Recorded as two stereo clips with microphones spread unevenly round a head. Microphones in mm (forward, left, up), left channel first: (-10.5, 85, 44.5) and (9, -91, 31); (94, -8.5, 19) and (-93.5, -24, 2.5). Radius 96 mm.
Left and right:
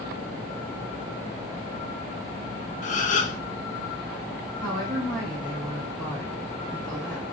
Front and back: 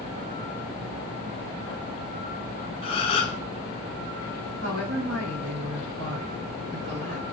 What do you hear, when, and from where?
2.8 s a gasp: 65° left, 0.5 m
4.6 s a woman speaking: 155° right, 1.7 m